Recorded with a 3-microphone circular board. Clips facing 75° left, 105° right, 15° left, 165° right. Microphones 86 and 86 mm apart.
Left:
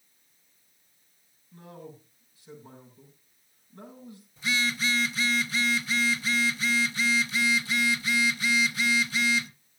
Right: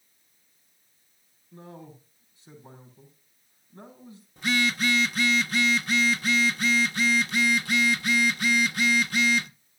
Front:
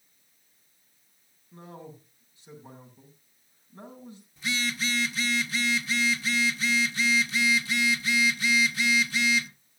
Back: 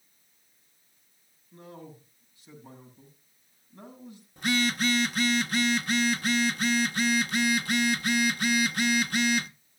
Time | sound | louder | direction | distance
1.5 | a man speaking | even, front 1 dB | 40° right | 6.5 m
4.4 | a phone buzzing | right 3 dB, back 5 dB | 135° right | 0.9 m